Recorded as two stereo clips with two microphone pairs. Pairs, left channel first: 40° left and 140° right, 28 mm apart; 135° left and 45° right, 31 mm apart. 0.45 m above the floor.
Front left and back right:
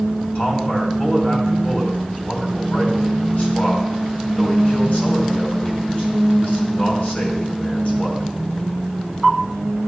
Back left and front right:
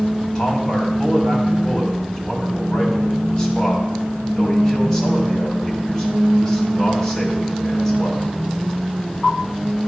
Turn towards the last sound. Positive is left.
turn(degrees=60)